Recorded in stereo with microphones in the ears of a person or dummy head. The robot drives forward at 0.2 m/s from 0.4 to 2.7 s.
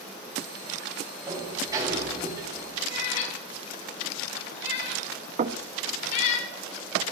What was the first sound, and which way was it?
A sliding door, 25° right (ahead or behind).